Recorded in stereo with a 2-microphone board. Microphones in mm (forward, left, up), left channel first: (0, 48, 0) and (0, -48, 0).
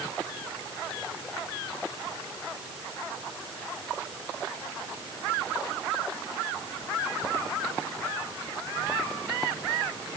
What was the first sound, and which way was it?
Only background noise.